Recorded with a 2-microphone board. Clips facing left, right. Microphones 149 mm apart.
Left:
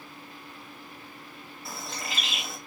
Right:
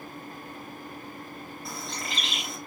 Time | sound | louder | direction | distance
1.6 | a bird | even | 5° left (ahead or behind) | 1.2 m